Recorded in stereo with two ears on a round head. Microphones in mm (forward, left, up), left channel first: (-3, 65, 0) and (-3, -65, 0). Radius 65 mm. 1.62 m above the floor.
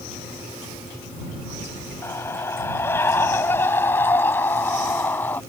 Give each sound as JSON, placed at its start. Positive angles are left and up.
{"t": 2.0, "sound": "a scream", "side_deg": 15}